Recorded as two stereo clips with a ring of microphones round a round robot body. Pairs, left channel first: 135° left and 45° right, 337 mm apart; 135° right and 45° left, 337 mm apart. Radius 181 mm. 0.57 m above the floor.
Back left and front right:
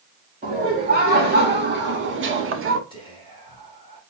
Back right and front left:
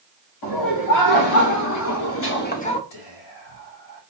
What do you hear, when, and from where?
0.4 s laughter: 110° right, 2.5 m; by 2.8 s 65° right, 1.0 m
2.9 s whispering: 150° right, 3.5 m